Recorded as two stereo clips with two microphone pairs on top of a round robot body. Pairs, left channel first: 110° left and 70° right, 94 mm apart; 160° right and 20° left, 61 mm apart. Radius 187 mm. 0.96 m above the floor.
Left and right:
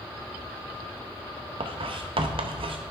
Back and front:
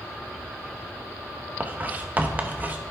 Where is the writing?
40° right, 0.8 m.